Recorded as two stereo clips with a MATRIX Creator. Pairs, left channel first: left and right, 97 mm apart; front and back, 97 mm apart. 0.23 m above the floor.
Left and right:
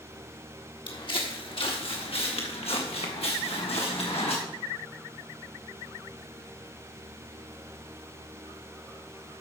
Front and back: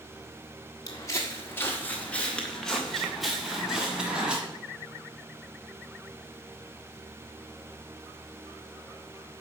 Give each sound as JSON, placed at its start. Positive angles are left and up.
{"t": 0.9, "sound": "footsteps", "azimuth_deg": 55, "distance_m": 1.6}